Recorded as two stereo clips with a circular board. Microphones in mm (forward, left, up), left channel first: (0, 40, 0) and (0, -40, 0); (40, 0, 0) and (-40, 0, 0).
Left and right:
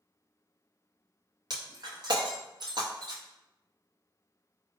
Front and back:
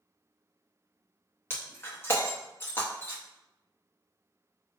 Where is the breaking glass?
60° right, 1.6 m.